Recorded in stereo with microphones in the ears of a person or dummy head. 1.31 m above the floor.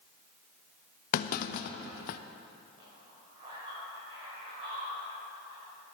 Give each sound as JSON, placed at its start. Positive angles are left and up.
{"t": 1.1, "sound": "a clunk", "side_deg": 55, "distance_m": 0.6}
{"t": 2.8, "sound": "a man speaking", "side_deg": -35, "distance_m": 4.5}